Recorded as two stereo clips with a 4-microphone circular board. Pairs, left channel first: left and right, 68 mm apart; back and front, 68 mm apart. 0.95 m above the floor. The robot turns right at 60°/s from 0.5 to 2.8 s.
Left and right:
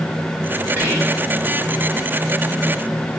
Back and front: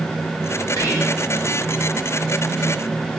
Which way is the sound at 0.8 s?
150° right.